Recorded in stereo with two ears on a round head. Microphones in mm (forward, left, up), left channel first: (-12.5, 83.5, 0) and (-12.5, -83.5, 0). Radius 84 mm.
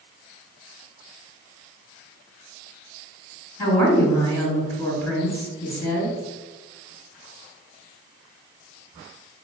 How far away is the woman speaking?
About 1.8 m.